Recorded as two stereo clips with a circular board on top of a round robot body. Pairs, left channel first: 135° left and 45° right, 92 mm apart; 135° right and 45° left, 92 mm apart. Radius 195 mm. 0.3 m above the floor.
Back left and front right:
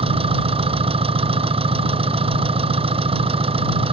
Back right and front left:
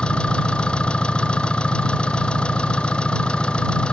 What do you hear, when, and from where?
0.0 s an engine running: 55° right